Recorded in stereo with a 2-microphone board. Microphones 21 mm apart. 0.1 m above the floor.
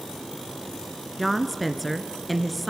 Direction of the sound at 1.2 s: Centre (ahead or behind).